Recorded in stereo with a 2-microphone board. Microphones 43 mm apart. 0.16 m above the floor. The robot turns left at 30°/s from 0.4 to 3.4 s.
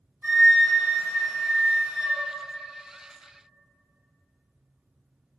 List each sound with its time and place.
0.2 s a flute: 110° right, 1.4 m; by 2.2 s 165° right, 1.4 m